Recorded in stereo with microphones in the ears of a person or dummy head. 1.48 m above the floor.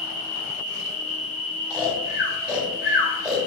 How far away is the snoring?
About 1.4 m.